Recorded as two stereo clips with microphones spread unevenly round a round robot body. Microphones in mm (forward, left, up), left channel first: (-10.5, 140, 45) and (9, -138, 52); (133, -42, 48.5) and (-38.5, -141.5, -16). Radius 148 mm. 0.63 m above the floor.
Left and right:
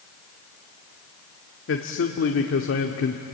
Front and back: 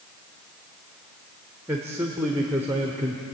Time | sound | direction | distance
1.7 | a man speaking | 135° left | 1.4 m